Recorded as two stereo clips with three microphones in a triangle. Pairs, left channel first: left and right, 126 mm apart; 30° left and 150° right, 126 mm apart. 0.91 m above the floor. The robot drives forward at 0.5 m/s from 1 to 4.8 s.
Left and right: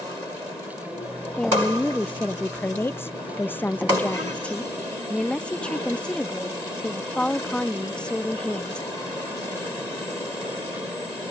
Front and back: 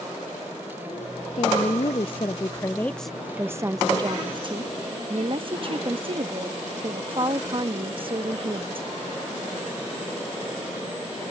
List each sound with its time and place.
1.4 s a woman speaking: 10° left; by 8.9 s 170° left